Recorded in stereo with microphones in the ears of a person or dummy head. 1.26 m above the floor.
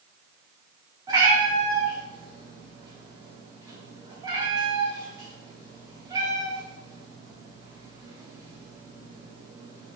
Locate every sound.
1.1 s a cat meowing: 20° right (ahead or behind), 1.3 m